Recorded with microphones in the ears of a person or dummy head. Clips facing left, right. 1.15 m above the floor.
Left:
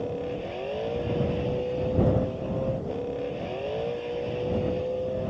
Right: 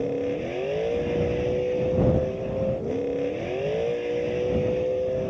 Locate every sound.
0.0 s a vehicle: 25° right (ahead or behind)